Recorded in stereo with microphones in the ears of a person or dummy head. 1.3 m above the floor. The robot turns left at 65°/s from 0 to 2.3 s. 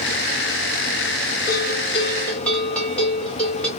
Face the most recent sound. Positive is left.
turn(degrees=5)